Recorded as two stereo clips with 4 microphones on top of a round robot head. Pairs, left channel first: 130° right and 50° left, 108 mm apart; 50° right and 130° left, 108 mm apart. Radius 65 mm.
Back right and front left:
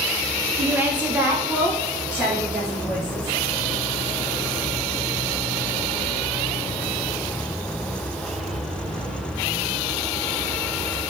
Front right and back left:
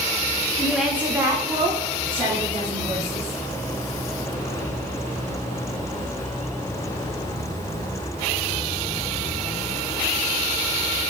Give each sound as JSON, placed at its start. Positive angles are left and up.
{"t": 0.6, "sound": "a woman speaking", "azimuth_deg": 20, "distance_m": 0.8}